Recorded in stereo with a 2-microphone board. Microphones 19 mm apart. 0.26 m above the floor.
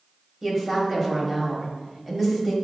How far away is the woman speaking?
About 1.0 m.